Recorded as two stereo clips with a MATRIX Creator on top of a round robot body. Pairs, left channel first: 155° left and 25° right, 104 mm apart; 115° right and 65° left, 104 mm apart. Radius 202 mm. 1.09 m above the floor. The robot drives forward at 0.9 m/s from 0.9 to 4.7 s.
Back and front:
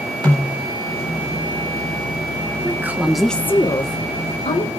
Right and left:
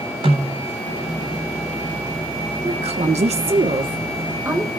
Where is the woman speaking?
45° left, 1.2 m; by 4.7 s 140° left, 1.3 m.